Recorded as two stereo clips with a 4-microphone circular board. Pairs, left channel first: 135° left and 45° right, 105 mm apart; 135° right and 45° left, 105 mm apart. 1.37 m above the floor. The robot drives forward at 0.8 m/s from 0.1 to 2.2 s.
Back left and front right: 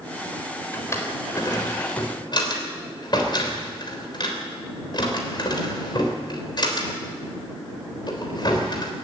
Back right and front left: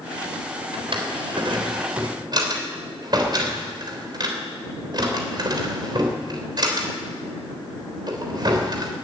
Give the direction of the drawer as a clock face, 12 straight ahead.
10 o'clock.